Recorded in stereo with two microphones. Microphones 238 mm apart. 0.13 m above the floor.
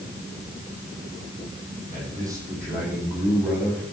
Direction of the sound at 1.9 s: 15° right (ahead or behind).